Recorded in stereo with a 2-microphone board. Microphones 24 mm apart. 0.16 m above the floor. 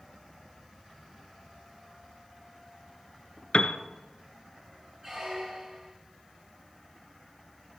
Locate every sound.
3.5 s a piano: 60° left (ahead or behind), 0.8 m
5.0 s a squeak: 30° right (ahead or behind), 2 m